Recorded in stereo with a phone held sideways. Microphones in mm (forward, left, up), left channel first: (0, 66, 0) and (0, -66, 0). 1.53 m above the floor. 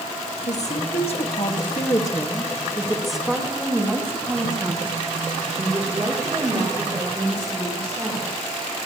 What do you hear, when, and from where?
0.5 s a woman speaking: 60° left (ahead or behind), 1.6 m; by 8.5 s 50° right (ahead or behind), 4 m